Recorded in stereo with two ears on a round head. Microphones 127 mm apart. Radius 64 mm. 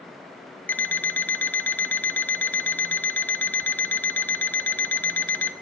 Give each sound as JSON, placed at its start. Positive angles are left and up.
{"t": 0.7, "sound": "an alarm clock", "side_deg": 15, "distance_m": 0.8}